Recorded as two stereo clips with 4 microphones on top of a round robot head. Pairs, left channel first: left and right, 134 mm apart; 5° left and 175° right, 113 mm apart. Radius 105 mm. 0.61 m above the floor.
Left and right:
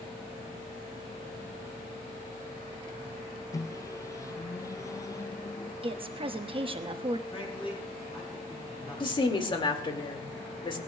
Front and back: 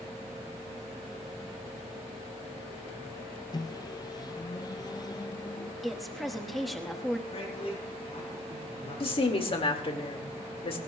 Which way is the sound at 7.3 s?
40° left.